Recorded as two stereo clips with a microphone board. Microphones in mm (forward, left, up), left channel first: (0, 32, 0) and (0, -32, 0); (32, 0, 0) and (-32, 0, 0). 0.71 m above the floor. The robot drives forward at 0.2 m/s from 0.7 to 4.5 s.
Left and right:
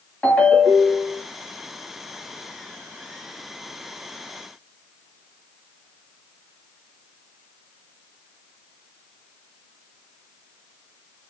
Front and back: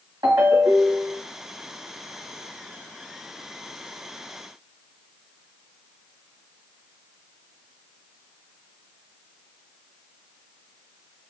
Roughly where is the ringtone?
Behind.